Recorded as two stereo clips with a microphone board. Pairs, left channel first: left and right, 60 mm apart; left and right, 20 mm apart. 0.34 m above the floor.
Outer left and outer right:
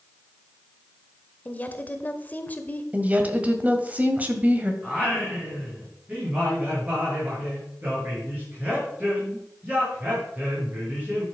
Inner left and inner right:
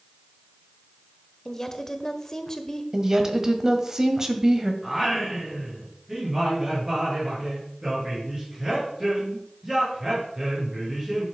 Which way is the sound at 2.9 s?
25° right (ahead or behind).